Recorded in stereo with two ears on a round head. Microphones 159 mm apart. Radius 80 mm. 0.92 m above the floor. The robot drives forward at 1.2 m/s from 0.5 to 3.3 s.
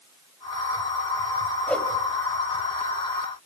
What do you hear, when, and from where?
1.7 s a whoosh: 5° left (ahead or behind), 2.5 m; by 1.9 s 10° left (ahead or behind), 2 m